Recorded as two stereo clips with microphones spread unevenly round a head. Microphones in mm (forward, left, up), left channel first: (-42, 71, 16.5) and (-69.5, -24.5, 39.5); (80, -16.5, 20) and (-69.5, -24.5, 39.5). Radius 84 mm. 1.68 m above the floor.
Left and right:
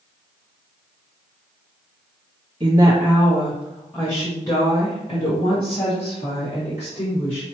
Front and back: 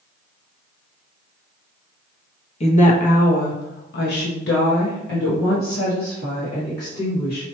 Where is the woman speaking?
45° right, 1.0 m; by 7.5 s 35° left, 2.5 m.